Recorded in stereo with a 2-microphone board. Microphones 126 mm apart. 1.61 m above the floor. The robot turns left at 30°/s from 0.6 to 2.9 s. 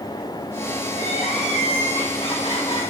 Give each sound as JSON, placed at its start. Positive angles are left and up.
{"t": 0.9, "sound": "crying", "azimuth_deg": 100, "distance_m": 3.5}